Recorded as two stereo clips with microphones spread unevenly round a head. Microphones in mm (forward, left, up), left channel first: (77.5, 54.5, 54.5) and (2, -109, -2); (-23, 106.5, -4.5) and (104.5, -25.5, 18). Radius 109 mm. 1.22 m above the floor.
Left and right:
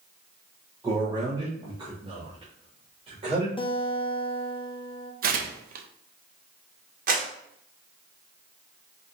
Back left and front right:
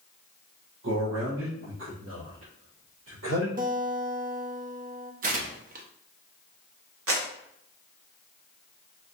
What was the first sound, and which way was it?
A man speaking, 45° right.